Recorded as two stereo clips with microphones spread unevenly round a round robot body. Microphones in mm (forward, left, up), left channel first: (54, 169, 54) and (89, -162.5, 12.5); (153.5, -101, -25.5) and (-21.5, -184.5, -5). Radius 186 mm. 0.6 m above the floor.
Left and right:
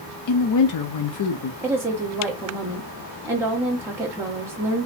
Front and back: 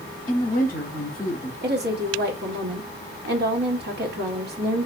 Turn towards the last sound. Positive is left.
turn(degrees=-155)